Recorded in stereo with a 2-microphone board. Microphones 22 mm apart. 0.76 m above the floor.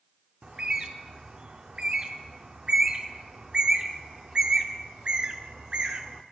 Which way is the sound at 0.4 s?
50° right (ahead or behind).